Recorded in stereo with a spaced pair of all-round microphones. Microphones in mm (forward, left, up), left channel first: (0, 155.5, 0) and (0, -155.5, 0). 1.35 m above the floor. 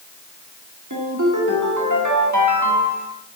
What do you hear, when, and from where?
0.9 s a ringtone: 70° right (ahead or behind), 2 m